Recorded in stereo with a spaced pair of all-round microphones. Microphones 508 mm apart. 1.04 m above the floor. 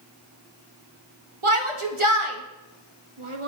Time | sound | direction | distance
1.4 | a shout | 70° right (ahead or behind) | 1.2 m